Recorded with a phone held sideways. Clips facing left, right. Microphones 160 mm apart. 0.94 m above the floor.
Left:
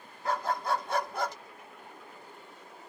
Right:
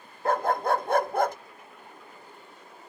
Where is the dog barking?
55° right (ahead or behind).